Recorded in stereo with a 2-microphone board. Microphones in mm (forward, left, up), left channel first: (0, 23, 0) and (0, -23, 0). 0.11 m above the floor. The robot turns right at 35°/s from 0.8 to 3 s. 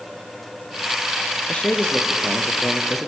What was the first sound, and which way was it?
A man speaking, 125° left.